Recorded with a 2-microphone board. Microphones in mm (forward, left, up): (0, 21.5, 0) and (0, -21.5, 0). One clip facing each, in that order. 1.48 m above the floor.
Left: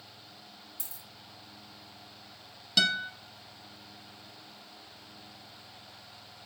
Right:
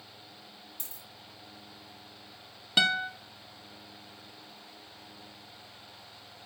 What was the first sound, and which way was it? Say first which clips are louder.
A dropped coin: right 1 dB; 50° right (ahead or behind).